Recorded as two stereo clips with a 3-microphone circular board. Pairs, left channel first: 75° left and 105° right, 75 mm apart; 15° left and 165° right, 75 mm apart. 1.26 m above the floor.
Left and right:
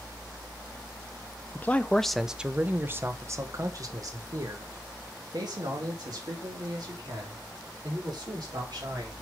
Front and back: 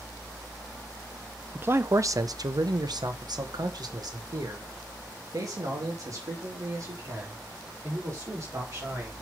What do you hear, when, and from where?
1.6 s a man speaking: 135° left, 0.8 m; by 9.1 s 120° right, 4.5 m